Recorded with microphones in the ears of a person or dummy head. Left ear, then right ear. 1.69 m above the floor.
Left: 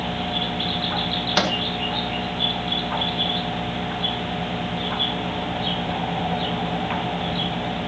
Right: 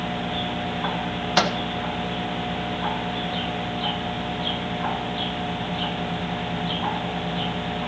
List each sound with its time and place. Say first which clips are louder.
1.4 s a microwave: right 1 dB; 10° right (ahead or behind), 1.3 m